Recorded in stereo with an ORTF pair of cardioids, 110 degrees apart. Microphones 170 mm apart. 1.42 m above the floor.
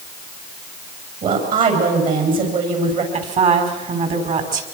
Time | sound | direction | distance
1.2 | a woman speaking | 55° right | 8.5 m
3.1 | a woman speaking | 45° right | 5 m